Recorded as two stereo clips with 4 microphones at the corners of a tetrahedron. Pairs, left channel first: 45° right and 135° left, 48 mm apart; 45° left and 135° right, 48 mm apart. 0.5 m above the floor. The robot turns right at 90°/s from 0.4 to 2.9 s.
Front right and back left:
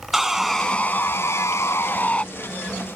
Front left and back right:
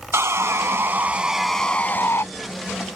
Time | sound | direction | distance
0.1 | sawing | 140° right | ?